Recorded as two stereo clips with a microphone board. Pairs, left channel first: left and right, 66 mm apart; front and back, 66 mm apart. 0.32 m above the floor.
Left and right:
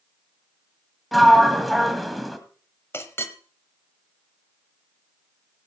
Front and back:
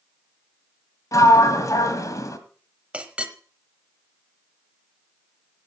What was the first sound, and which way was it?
A sliding door, straight ahead.